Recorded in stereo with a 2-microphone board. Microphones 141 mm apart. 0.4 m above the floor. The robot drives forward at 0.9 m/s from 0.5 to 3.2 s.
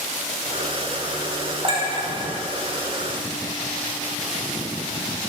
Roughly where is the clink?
Right.